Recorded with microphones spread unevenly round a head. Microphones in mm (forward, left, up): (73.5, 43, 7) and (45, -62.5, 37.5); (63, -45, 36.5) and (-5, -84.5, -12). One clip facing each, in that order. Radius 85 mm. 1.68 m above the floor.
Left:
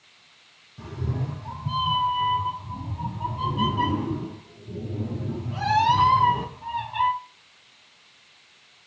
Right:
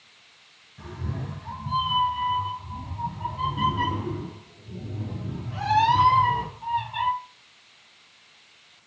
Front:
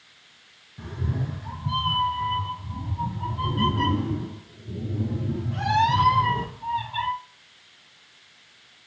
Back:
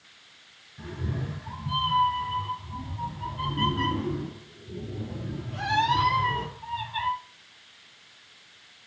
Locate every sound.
0.8 s a cat meowing: 5° left, 3 m; by 7.1 s 15° left, 6.5 m